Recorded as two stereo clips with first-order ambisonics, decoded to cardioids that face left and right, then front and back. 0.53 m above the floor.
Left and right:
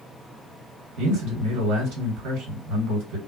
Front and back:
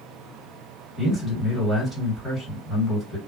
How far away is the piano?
No piano in this recording.